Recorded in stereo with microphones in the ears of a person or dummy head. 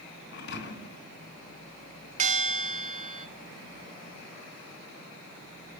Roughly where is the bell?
Right.